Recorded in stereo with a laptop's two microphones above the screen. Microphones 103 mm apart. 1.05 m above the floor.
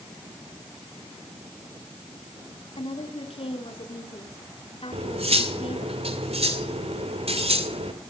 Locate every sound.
2.8 s a woman speaking: 65° left (ahead or behind), 3.5 m
4.9 s cutlery clinking: 75° right (ahead or behind), 2.5 m